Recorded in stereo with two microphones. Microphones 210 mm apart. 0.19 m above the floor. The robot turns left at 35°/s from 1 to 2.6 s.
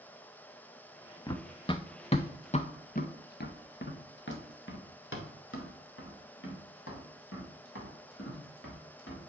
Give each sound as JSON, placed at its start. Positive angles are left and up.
{"t": 1.3, "sound": "running footsteps", "side_deg": 20, "distance_m": 0.7}